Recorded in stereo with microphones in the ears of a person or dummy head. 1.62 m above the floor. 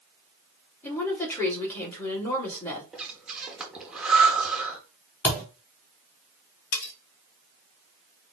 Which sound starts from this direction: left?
Cutlery clinking, at 6.7 s.